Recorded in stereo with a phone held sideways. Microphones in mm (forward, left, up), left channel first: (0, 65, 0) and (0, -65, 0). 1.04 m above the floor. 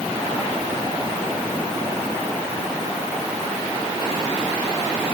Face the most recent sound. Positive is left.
No sound to turn to.